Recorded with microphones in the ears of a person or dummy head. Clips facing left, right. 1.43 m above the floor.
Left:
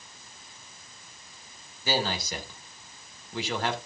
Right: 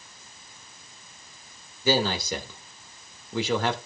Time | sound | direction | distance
1.9 | a man speaking | 75° right (ahead or behind) | 2 m